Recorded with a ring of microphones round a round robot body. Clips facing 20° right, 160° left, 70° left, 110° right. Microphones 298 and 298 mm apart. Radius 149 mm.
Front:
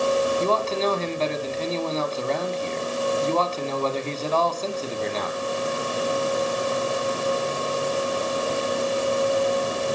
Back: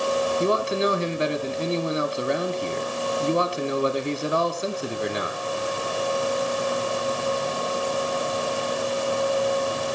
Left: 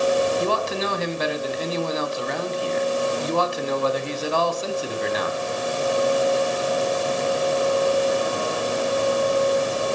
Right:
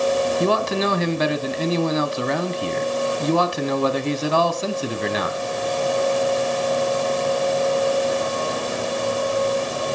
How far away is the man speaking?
About 3 m.